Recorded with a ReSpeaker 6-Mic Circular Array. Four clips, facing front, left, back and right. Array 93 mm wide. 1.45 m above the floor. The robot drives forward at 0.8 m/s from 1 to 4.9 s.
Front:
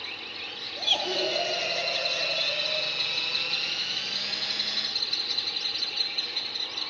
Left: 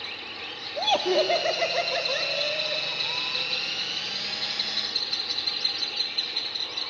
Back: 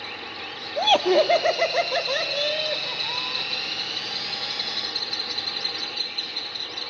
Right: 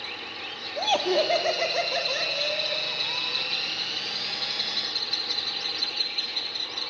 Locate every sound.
0.8 s laughter: straight behind, 1.3 m